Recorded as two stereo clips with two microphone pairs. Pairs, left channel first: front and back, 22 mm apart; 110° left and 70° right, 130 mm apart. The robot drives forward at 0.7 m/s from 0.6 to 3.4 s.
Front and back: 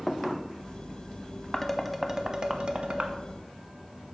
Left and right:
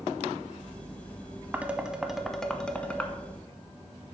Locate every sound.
1.5 s dishes clattering: 30° right, 0.8 m; by 3.1 s 170° right, 1.2 m